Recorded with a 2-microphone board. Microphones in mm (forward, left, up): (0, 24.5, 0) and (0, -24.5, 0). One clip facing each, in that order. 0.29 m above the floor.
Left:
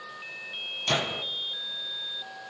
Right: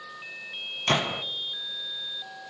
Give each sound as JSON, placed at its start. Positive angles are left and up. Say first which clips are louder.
{"t": 0.9, "sound": "a gunshot", "louder": "right 3 dB", "side_deg": -45, "distance_m": 2.0}